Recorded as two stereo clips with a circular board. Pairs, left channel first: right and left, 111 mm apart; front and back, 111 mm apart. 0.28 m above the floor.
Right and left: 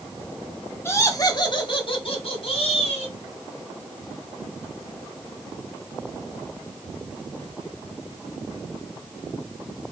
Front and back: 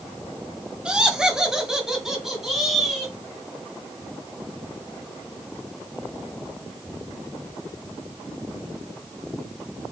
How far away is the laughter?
About 1.0 m.